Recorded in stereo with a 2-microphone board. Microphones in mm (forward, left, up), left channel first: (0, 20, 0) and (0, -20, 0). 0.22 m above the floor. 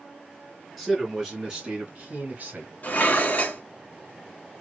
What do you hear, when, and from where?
0.8 s a man speaking: 5° right (ahead or behind), 3 m; by 2.7 s 50° right (ahead or behind), 2.5 m
2.8 s dishes clattering: 40° left (ahead or behind), 1.3 m